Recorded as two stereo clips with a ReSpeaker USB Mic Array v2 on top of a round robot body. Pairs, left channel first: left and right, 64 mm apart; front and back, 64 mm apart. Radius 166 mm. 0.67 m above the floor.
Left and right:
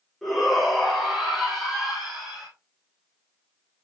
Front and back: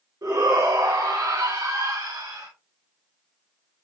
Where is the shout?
Straight behind, 3.5 m; by 2.5 s 175° right, 5 m.